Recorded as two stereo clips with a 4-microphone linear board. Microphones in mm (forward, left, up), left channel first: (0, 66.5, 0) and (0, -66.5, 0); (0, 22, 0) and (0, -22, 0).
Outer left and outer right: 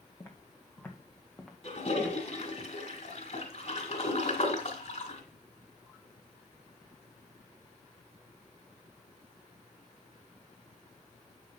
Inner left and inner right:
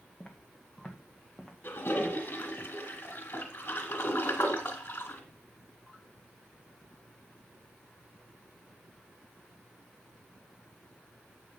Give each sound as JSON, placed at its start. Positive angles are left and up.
{"t": 0.2, "sound": "footsteps", "side_deg": 25, "distance_m": 1.6}
{"t": 1.6, "sound": "a toilet flushing", "side_deg": 60, "distance_m": 1.8}